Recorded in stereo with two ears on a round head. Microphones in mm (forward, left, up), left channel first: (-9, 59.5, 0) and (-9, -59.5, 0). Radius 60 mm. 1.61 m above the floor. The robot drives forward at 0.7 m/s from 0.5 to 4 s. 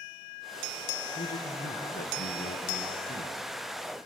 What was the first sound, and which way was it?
A man speaking, 60° left (ahead or behind).